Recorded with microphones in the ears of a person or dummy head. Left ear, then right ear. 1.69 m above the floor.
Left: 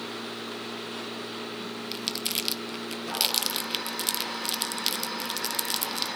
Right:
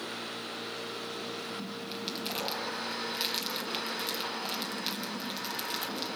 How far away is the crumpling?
About 0.6 m.